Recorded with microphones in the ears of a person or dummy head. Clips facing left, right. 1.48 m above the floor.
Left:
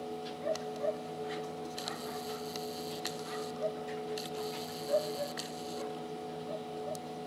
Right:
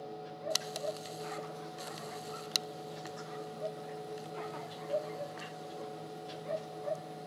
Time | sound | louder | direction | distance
0.0 | a machine running | left 4 dB | 40° left (ahead or behind) | 1.5 m